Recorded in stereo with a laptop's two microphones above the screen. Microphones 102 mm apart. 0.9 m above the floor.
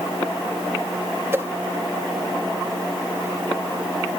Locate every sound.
1.3 s a whoosh: 25° right (ahead or behind)